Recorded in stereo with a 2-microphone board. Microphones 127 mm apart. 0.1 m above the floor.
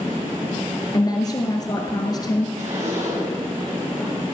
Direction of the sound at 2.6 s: 55° right (ahead or behind).